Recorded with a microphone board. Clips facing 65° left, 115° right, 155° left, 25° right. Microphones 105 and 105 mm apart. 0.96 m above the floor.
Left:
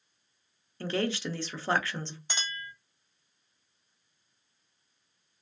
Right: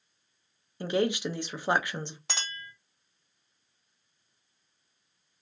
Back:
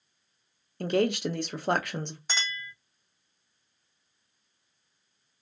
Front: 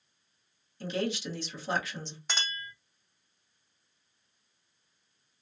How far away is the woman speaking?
About 0.5 m.